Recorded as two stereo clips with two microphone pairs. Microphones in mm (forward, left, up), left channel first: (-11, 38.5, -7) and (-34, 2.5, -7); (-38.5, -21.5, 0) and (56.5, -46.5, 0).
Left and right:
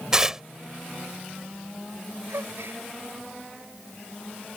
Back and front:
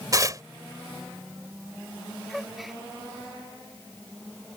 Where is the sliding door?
No sliding door in this recording.